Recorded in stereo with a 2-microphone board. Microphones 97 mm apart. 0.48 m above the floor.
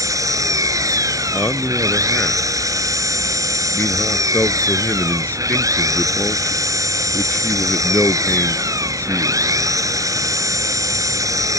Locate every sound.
0.0 s an engine running: 35° right (ahead or behind)
1.3 s a man speaking: 20° left (ahead or behind)